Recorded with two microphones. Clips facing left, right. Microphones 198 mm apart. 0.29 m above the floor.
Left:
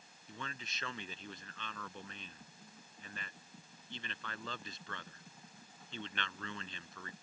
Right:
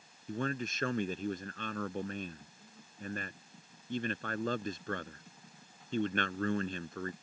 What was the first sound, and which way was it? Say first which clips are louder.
A man speaking: right 13 dB; 50° right (ahead or behind).